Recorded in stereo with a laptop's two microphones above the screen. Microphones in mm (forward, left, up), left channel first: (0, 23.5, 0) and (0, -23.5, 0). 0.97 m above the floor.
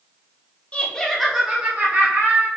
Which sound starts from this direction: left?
Laughter, at 0.7 s.